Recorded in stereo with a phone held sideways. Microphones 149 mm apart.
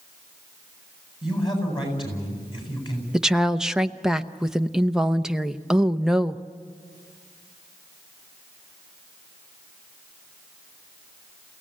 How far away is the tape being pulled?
No tape being pulled in this recording.